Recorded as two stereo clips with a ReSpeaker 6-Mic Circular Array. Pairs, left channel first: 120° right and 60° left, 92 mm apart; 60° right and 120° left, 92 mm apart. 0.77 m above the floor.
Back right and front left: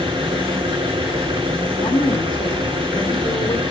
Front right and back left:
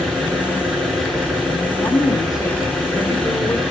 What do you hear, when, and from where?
0.0 s an engine running: 30° left, 6 m
1.8 s a woman speaking: 105° right, 2.5 m